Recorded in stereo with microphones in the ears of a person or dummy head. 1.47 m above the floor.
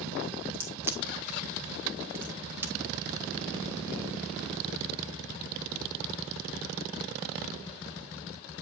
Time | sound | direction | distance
0.5 | a crack | 15° right (ahead or behind) | 0.8 m